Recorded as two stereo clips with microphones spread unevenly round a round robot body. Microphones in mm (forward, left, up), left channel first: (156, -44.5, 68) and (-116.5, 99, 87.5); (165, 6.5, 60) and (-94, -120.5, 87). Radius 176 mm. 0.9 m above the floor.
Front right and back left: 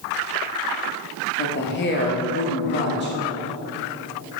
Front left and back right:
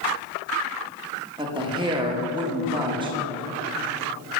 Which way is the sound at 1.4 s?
80° right.